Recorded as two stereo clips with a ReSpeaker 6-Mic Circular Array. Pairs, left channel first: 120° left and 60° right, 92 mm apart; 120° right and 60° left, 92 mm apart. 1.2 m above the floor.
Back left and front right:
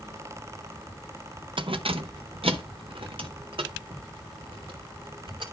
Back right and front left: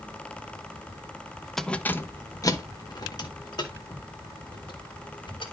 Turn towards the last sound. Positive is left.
turn(degrees=-90)